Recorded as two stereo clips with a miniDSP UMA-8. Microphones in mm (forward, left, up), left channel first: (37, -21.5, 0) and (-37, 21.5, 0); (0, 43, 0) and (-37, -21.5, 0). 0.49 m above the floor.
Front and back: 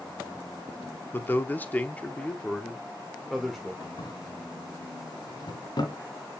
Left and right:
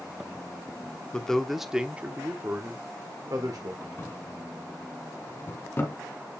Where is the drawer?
Straight ahead, 2 m.